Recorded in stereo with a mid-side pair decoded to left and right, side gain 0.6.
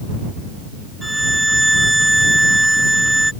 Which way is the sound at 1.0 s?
5° right.